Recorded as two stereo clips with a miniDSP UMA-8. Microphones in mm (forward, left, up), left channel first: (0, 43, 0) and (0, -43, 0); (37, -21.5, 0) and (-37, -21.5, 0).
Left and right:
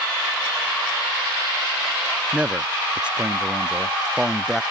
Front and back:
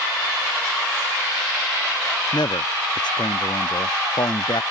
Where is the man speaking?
15° right; by 4.6 s 5° right.